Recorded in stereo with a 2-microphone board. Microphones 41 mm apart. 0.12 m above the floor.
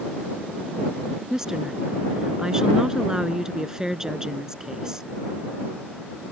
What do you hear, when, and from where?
1.3 s a woman speaking: 15° right (ahead or behind)